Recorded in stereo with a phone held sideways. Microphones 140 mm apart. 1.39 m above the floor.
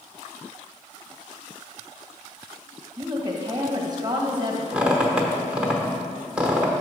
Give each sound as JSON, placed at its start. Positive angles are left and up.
{"t": 3.0, "sound": "a woman speaking", "side_deg": -30, "distance_m": 1.3}
{"t": 4.7, "sound": "a squeak", "side_deg": -10, "distance_m": 1.0}